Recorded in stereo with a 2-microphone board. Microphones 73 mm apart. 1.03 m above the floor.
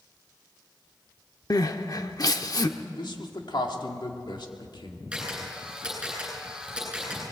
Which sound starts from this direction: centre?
A camera shutter, at 5.1 s.